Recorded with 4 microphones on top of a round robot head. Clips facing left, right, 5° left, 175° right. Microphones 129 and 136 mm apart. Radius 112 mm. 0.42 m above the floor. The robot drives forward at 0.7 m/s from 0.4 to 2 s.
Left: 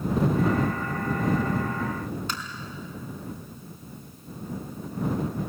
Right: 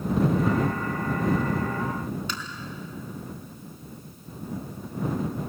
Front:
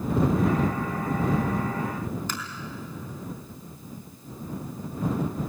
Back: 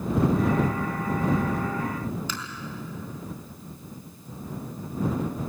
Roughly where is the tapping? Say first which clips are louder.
Left 1 dB, front 1 dB; ahead left.